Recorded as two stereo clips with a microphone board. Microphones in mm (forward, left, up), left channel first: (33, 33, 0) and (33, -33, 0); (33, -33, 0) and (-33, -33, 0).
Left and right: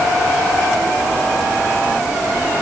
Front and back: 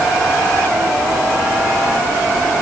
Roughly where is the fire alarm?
No fire alarm in this recording.